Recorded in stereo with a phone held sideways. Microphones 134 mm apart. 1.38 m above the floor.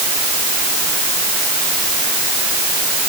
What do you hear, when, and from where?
Only background noise.